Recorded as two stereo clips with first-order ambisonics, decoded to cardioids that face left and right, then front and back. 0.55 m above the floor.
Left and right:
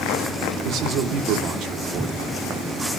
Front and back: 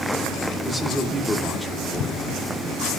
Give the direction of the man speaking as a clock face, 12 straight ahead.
3 o'clock.